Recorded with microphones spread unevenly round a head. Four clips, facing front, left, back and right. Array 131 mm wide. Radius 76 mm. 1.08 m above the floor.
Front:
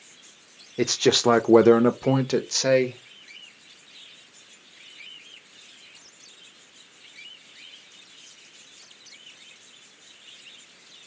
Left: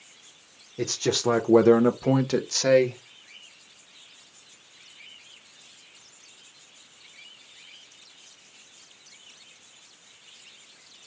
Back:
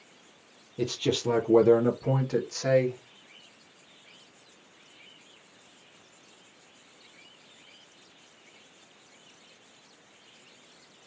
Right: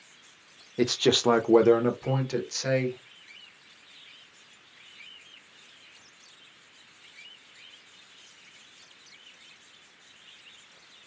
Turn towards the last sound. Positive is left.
turn(degrees=45)